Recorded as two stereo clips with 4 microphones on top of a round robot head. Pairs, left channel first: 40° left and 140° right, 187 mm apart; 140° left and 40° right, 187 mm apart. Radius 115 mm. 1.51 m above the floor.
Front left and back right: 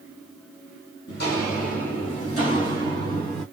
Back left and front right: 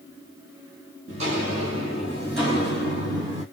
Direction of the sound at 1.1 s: 10° left.